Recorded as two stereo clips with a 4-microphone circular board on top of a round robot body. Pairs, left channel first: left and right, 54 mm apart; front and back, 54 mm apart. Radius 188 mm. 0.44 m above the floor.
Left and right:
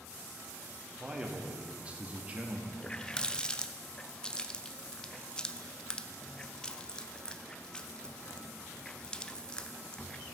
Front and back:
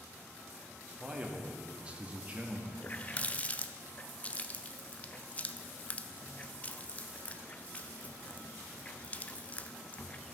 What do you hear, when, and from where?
1.0 s a man speaking: 135° right, 1.3 m
2.8 s a running tap: 30° left, 0.6 m